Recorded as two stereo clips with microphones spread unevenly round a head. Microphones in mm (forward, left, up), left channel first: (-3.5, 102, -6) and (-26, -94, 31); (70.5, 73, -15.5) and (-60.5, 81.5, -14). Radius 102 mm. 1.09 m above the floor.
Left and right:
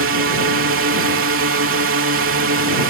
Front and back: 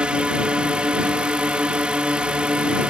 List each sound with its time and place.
0.0 s a drone: 100° right